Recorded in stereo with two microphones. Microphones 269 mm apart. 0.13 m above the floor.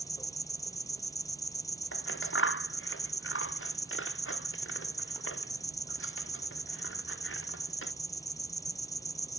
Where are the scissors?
50° left (ahead or behind).